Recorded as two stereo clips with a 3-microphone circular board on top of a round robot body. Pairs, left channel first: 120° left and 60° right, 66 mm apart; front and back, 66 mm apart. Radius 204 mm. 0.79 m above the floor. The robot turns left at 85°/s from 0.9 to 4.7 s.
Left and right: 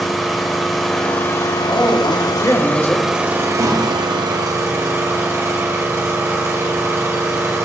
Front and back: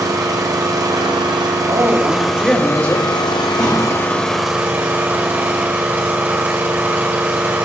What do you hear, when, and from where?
0.0 s an engine running: 150° right, 1.3 m; by 7.7 s 115° right, 1.3 m
1.7 s a woman speaking: 165° left, 2 m; by 3.1 s 45° left, 2 m
3.6 s a thud: 55° right, 5 m; by 3.9 s 80° right, 5 m